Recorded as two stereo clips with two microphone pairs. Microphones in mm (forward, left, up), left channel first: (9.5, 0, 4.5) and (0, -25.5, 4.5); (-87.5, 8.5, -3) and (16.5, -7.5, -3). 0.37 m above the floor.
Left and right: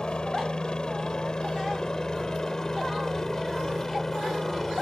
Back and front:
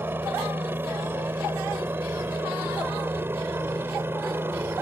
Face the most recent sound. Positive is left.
turn(degrees=10)